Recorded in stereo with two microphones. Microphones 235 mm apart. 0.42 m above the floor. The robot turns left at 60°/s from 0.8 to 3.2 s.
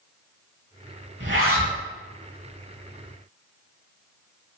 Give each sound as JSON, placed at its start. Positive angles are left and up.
{"t": 1.2, "sound": "a zipper", "azimuth_deg": -50, "distance_m": 0.7}